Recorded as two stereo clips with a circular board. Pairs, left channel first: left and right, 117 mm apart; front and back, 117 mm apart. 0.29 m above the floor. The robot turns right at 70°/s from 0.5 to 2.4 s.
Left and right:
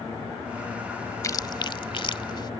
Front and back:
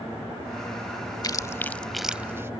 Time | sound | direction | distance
1.2 | chewing | 40° left | ?